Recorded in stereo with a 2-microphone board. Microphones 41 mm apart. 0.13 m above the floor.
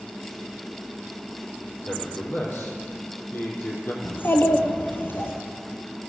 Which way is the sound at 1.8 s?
60° left (ahead or behind).